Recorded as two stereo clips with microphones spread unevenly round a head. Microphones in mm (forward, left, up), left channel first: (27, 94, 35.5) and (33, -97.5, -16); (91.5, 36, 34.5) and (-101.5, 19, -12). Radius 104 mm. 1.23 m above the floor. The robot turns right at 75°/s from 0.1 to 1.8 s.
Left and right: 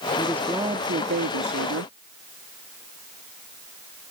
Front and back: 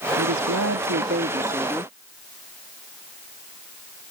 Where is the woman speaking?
160° left; by 1.9 s 75° right.